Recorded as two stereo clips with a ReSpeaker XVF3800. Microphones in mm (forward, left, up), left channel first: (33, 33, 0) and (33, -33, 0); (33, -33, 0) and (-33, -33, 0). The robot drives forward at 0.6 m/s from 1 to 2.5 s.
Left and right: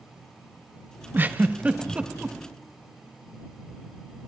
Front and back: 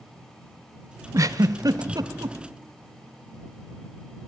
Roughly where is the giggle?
Behind right.